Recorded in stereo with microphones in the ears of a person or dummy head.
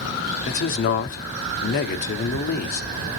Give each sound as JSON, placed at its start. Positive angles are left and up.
{"t": 0.5, "sound": "a man speaking", "side_deg": 50, "distance_m": 0.7}